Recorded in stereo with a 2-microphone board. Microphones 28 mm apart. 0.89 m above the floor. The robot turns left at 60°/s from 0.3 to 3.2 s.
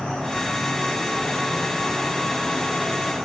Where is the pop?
No pop in this recording.